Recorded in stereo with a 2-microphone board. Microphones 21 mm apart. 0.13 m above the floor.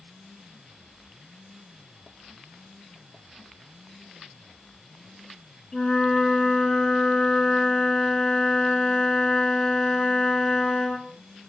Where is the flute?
30° left (ahead or behind), 0.8 m.